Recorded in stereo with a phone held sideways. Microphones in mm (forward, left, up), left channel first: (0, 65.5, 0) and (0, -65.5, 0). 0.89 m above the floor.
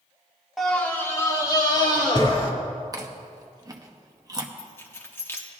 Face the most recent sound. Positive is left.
turn(degrees=20)  # may be behind; listen again after turning